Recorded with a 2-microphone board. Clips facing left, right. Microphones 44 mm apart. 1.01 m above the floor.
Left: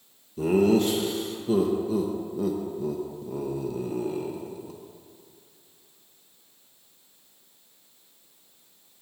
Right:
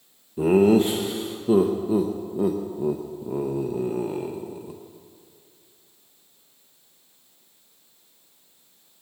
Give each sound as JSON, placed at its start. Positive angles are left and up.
{"t": 0.4, "sound": "laughter", "side_deg": -25, "distance_m": 0.7}